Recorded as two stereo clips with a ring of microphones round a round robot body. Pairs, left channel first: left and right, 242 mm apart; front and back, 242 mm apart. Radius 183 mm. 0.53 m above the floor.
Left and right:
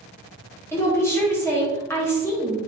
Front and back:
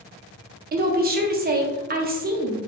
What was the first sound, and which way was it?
A woman speaking, 165° left.